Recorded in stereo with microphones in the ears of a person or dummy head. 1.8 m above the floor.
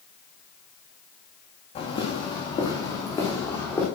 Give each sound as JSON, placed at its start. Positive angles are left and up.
{"t": 1.8, "sound": "footsteps", "side_deg": 40, "distance_m": 4.0}